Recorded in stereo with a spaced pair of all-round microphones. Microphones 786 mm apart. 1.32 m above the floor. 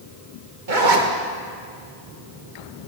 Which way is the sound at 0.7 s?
85° right.